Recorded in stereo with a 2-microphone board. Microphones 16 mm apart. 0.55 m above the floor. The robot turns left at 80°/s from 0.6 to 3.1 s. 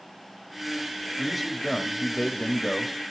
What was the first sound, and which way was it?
A man speaking, 165° right.